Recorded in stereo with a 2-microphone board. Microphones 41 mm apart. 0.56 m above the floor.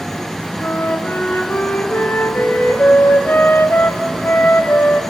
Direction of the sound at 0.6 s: 65° left (ahead or behind).